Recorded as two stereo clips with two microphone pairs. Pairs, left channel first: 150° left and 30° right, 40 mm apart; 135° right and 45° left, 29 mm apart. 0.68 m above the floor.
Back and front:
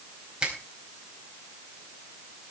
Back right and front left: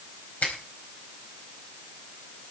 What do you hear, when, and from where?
0.4 s a finger snap: 100° right, 4.5 m